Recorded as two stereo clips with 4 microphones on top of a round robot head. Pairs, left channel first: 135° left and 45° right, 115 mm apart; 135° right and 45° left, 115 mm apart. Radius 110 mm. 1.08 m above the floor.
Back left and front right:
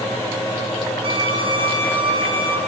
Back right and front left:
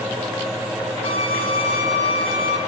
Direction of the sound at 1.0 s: 90° right.